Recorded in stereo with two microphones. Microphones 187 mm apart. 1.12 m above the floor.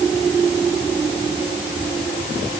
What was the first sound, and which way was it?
Only background noise.